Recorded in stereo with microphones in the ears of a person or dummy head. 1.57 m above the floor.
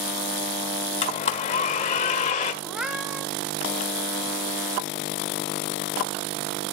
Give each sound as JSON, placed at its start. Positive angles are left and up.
{"t": 1.0, "sound": "a blender", "side_deg": 35, "distance_m": 1.5}
{"t": 2.6, "sound": "a cat meowing", "side_deg": -5, "distance_m": 1.4}